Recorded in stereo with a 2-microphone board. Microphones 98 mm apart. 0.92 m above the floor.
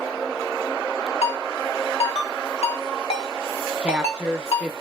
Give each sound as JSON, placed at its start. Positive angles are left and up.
{"t": 1.2, "sound": "a ringtone", "side_deg": 80, "distance_m": 1.0}
{"t": 3.8, "sound": "a woman speaking", "side_deg": -10, "distance_m": 0.7}